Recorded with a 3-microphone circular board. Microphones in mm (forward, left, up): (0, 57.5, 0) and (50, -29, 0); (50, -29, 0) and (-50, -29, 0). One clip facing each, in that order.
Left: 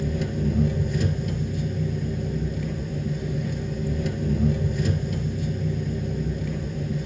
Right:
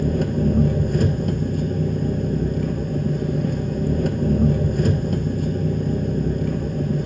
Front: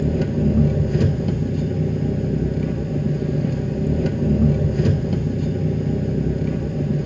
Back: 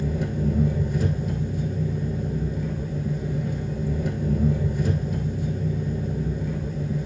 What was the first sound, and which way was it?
An engine running, 20° right.